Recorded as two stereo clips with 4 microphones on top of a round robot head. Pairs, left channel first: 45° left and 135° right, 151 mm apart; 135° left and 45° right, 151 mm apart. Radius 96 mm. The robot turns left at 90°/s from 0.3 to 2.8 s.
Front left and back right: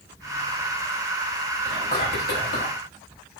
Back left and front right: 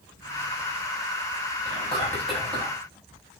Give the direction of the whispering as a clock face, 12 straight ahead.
9 o'clock.